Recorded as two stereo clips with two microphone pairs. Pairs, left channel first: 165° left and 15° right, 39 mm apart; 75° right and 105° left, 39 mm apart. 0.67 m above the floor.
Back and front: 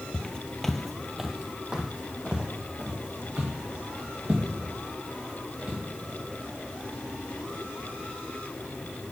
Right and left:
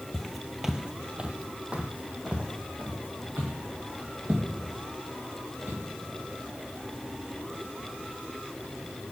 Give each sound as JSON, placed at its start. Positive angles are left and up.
{"t": 0.1, "sound": "footsteps", "azimuth_deg": -155, "distance_m": 0.7}